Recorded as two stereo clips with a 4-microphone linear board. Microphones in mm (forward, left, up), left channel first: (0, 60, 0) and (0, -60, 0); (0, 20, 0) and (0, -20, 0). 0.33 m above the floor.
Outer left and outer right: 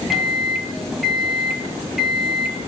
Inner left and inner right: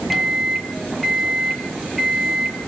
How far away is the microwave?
About 1.5 m.